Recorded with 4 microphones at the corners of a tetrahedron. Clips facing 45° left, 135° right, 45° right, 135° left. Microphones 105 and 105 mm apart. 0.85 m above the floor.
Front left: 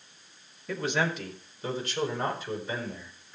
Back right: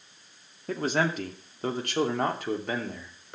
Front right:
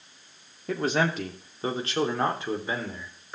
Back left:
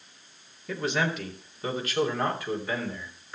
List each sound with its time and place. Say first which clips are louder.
0.7 s a man speaking: back right 2 dB, front right 3 dB; 90° right, 2.5 m; by 3.4 s 115° right, 3.5 m